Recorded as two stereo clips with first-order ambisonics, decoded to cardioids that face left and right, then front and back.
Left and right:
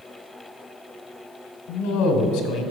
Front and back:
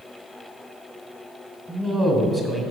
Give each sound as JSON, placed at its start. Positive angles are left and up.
{"t": 1.7, "sound": "a man speaking", "azimuth_deg": 105, "distance_m": 1.7}